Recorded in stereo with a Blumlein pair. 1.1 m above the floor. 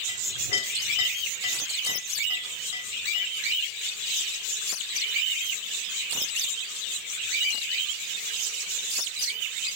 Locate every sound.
0.1 s a clink: 60° left, 4 m